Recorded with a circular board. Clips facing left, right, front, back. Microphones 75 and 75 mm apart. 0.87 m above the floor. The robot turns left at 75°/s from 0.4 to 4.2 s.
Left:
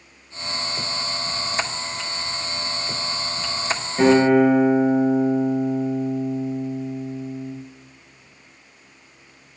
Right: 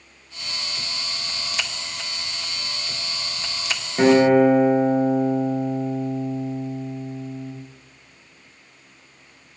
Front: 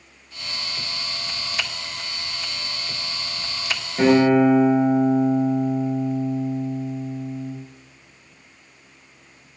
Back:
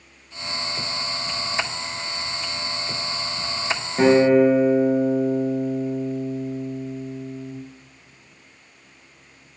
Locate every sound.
4.0 s a guitar: 140° right, 0.7 m; by 7.5 s 155° right, 0.7 m